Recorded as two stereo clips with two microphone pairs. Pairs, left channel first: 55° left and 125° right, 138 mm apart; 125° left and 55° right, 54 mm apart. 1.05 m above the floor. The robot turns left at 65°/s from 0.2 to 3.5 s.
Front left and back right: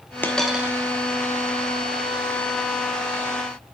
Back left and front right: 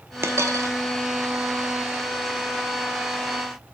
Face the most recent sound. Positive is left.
turn(degrees=125)